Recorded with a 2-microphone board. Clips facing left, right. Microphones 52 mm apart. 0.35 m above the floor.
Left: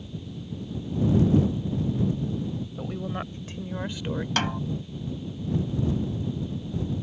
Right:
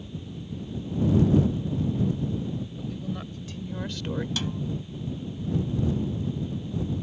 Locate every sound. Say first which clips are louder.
2.8 s a woman speaking: left 2 dB; 50° left (ahead or behind); by 4.3 s centre (ahead or behind)
4.4 s a snare drum: left 5 dB; 60° left (ahead or behind)